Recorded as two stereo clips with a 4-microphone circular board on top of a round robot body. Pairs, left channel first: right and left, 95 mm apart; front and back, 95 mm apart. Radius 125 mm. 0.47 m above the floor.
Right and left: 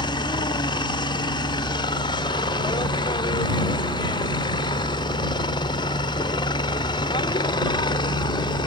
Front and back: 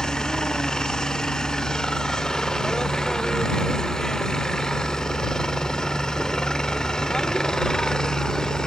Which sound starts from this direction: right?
A helicopter, at 0.0 s.